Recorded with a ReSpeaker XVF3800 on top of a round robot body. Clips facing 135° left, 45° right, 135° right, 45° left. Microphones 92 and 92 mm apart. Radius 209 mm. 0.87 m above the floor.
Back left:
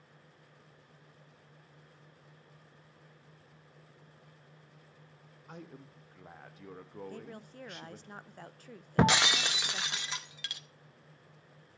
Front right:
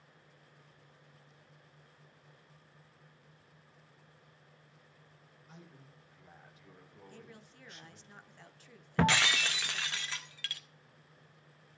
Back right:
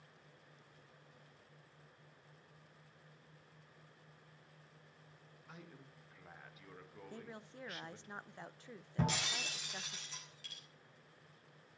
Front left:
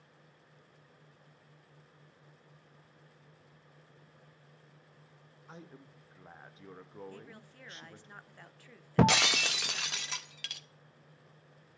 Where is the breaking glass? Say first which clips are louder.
Back left 2 dB, front left 12 dB; 65° left, 0.6 m.